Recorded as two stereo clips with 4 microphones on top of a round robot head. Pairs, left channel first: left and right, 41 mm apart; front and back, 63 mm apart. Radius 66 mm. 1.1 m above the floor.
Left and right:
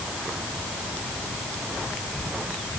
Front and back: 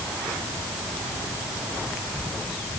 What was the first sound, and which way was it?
Only background noise.